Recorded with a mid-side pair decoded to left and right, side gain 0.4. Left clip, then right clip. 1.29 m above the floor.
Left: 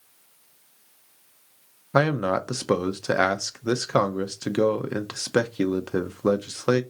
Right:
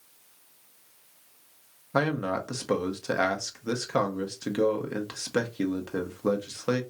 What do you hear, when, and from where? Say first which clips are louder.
1.9 s a man speaking: left 5 dB; 50° left, 0.8 m